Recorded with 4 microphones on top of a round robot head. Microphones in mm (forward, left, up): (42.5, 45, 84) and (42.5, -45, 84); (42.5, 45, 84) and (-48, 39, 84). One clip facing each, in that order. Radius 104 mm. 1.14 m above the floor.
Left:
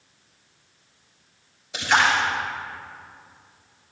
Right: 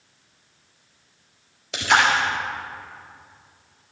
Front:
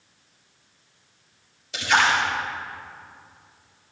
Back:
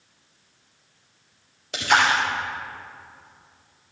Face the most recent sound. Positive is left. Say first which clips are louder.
# right 1 dB, back 1 dB
turn(degrees=-125)